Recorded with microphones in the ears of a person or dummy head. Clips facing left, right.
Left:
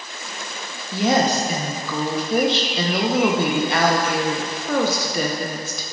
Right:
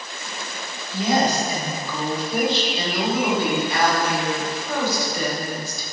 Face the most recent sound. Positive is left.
turn(degrees=55)  # may be behind; listen again after turning